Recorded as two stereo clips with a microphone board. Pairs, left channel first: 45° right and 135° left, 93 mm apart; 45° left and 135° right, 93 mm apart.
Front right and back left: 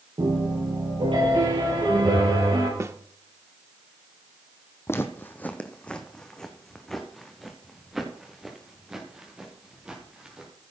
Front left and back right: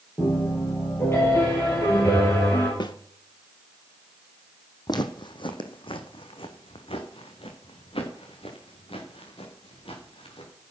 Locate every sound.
0.2 s a piano: 105° left, 8 m
2.8 s a snare drum: 75° left, 0.8 m
4.9 s footsteps: 15° left, 1.3 m; by 10.5 s 55° left, 4.5 m